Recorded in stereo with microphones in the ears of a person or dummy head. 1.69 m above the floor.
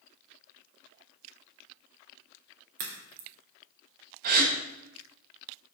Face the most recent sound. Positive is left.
turn(degrees=-50)  # may be behind; listen again after turning